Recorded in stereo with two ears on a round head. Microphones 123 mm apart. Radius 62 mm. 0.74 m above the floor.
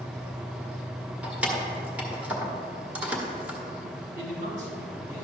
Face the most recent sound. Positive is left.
turn(degrees=-65)  # may be behind; listen again after turning